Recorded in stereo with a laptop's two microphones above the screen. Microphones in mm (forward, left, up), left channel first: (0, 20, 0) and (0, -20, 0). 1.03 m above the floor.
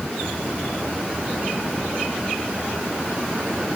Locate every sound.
Only background noise.